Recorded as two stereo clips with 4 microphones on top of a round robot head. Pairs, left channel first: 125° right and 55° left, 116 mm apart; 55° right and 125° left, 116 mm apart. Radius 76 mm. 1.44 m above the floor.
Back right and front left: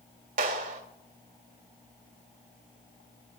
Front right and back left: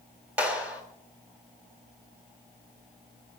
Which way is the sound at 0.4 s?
45° left.